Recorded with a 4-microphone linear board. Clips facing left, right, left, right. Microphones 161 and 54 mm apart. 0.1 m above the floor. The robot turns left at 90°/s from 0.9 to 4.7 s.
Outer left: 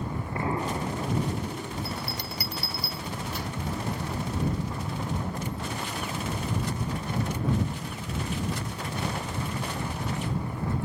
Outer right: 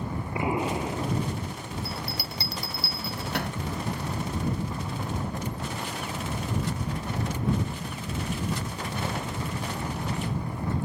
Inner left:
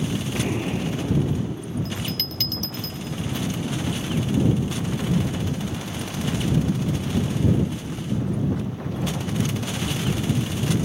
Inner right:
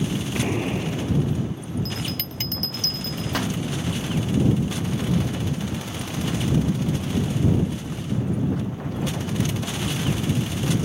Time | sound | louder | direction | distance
0.3 | an explosion | outer right 2 dB, inner right 2 dB | 165° right | ?
1.9 | a bell | outer left 1 dB, inner left 1 dB | 25° left (ahead or behind) | ?